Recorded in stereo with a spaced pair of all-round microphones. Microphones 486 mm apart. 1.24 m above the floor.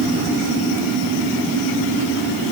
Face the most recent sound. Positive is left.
No sound to turn to.